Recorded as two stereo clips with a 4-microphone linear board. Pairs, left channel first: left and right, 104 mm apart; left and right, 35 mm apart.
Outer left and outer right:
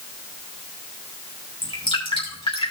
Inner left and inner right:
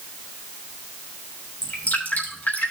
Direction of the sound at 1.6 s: 65° left (ahead or behind).